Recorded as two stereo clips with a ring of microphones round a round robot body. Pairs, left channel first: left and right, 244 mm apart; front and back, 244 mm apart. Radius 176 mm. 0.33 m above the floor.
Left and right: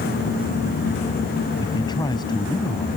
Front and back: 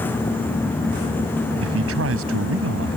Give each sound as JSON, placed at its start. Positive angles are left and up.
{"t": 1.6, "sound": "a man speaking", "azimuth_deg": 165}